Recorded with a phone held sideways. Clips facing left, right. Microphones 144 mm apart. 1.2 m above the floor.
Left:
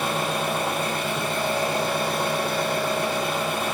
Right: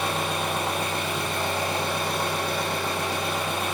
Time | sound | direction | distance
0.0 | an engine running | 5° left (ahead or behind) | 1.4 m